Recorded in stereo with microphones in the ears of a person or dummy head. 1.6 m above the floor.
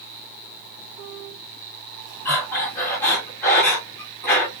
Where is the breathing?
10° left (ahead or behind), 1.4 m.